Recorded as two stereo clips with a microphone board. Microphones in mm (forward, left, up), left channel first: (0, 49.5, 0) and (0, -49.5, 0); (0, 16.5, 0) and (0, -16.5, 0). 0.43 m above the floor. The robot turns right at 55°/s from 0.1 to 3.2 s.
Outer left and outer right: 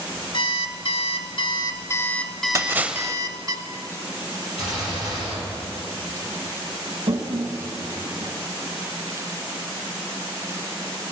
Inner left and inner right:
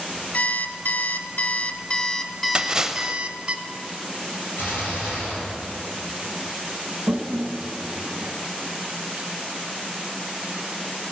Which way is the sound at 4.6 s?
85° left.